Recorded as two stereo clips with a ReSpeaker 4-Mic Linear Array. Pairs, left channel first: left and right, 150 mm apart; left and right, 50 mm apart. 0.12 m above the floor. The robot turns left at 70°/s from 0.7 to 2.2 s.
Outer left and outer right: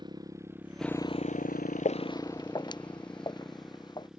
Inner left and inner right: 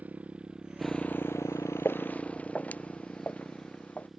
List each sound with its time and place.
0.0 s a motorcycle: 30° right (ahead or behind); by 4.2 s 5° right (ahead or behind)
1.9 s footsteps: 55° left (ahead or behind); by 4.1 s 30° left (ahead or behind)